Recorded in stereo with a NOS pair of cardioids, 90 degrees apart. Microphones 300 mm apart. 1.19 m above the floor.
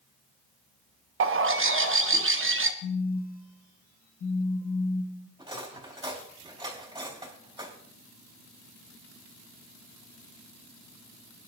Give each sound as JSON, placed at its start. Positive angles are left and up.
{"t": 1.2, "sound": "a bird", "azimuth_deg": -45, "distance_m": 1.2}
{"t": 2.8, "sound": "a phone buzzing", "azimuth_deg": 50, "distance_m": 1.5}
{"t": 5.4, "sound": "cutlery clinking", "azimuth_deg": -15, "distance_m": 4.0}